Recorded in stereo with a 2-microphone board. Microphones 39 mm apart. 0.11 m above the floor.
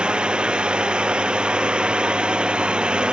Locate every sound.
0.0 s a drone: 20° right (ahead or behind)